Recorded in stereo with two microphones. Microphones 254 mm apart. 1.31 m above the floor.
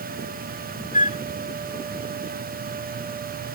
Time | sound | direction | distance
0.9 | a flute | 30° left (ahead or behind) | ?